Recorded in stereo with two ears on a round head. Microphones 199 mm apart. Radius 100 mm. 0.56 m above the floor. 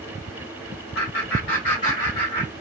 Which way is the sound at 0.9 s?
50° left (ahead or behind).